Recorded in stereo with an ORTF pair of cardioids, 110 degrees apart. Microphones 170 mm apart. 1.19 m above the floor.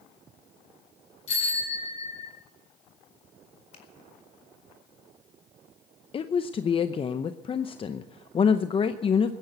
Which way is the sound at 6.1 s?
35° left.